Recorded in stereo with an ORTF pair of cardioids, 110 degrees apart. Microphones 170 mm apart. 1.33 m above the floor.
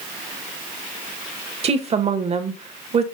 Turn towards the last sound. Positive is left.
turn(degrees=-35)